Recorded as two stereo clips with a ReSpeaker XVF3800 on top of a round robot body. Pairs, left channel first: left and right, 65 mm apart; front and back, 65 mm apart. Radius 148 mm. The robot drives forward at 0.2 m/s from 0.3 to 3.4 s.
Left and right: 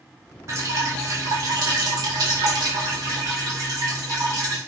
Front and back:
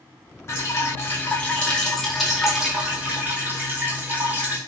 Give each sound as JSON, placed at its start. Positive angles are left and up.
{"t": 0.5, "sound": "dripping", "azimuth_deg": -50, "distance_m": 0.6}